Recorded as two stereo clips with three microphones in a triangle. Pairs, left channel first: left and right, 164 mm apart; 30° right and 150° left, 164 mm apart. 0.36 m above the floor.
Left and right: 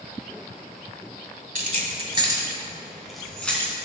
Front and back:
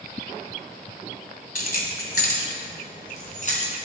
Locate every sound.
1.6 s keys jangling: 60° right, 1.7 m; by 3.7 s 10° left, 3 m